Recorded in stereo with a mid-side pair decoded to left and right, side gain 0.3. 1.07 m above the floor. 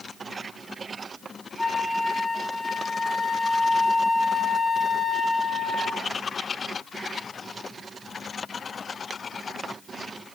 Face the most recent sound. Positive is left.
turn(degrees=20)